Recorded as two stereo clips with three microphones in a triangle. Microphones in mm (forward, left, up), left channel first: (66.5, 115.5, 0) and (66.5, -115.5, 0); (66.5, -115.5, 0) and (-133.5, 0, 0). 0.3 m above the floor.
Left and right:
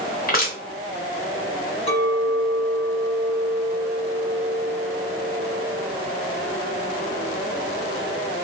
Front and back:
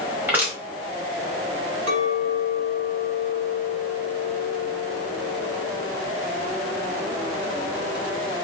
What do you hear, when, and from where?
0.3 s crushing: 75° left, 1.3 m
1.9 s a clink: 155° left, 1.6 m